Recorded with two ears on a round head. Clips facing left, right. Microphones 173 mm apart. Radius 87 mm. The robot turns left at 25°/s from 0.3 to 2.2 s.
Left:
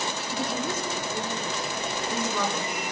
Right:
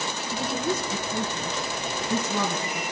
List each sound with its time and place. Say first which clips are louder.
0.3 s a woman speaking: right 3 dB; 70° right (ahead or behind), 4 m; by 2.8 s 30° right (ahead or behind), 4 m